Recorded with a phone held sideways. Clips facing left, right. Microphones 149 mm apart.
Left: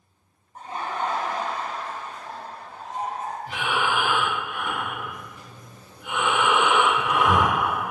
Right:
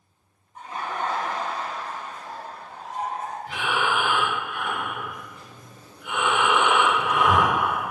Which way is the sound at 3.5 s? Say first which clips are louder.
Even; 40° left (ahead or behind).